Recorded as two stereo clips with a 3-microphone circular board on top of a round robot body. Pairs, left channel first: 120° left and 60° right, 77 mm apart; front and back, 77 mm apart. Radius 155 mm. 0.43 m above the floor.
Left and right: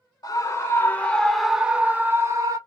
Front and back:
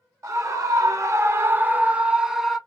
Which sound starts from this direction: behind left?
A scream, at 0.2 s.